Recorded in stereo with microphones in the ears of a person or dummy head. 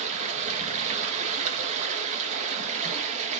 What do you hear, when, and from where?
0.0 s running water: 35° right (ahead or behind), 1.0 m